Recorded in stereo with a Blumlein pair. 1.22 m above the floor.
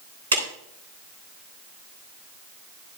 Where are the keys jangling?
No keys jangling in this recording.